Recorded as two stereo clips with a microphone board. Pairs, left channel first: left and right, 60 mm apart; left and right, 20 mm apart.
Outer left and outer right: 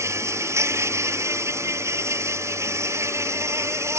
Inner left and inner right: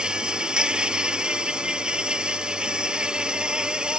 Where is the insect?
50° right (ahead or behind).